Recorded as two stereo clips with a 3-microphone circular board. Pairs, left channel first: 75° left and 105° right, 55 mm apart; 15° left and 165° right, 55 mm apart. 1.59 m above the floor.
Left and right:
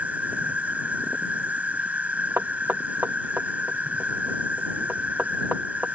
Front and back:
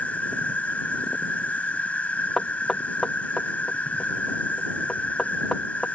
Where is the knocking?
60° right.